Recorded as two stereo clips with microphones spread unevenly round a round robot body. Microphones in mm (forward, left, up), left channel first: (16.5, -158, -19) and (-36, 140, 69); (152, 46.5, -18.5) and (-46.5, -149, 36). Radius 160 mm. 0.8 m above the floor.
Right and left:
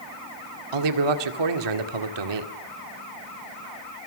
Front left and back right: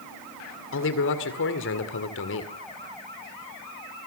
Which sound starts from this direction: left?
A man speaking, at 0.7 s.